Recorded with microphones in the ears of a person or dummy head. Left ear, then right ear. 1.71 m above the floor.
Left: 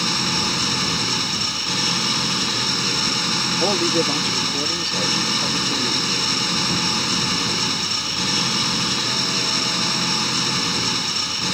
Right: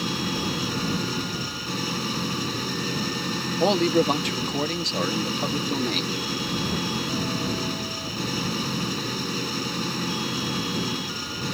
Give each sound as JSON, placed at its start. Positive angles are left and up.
{"t": 0.0, "sound": "an engine running", "side_deg": 30}
{"t": 3.6, "sound": "a man speaking", "side_deg": -20}